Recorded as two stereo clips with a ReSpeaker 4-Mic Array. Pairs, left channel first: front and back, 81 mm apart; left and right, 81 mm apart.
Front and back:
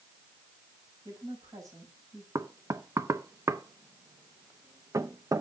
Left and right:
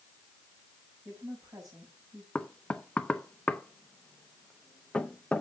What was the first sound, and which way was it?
A woman speaking, 135° right.